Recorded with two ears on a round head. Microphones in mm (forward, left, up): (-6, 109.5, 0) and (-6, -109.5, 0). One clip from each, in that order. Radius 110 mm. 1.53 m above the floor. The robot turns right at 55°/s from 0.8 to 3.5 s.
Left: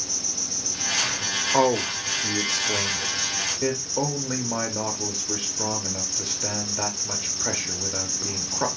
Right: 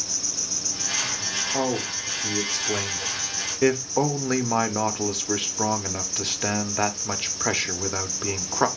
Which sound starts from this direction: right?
An insect, at 0.0 s.